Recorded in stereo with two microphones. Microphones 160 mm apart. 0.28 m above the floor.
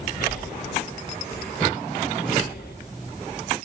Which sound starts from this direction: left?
Breathing, at 0.2 s.